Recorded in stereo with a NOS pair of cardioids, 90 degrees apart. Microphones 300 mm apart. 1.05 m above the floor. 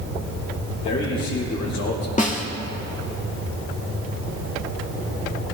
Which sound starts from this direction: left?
A man speaking, at 0.8 s.